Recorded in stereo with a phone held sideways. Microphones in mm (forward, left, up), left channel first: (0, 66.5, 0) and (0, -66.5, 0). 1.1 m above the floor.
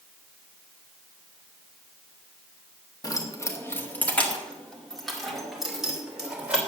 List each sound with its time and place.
3.0 s keys jangling: 30° left (ahead or behind), 1.5 m; by 6.6 s 10° right (ahead or behind), 3.5 m